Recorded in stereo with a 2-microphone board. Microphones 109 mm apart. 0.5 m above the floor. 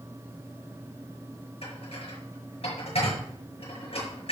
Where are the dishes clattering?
60° left (ahead or behind), 5.5 m.